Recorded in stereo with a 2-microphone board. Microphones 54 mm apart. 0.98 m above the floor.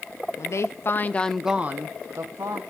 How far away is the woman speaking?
About 1.4 m.